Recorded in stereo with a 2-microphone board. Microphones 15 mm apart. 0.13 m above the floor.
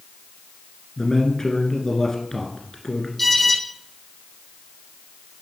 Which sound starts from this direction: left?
A man speaking, at 1.0 s.